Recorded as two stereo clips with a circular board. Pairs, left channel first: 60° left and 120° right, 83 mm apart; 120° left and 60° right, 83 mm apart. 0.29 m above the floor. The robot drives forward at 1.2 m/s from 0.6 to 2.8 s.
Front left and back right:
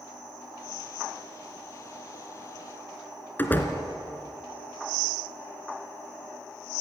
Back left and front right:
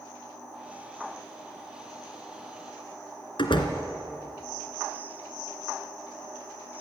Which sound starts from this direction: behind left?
A door slam, at 3.4 s.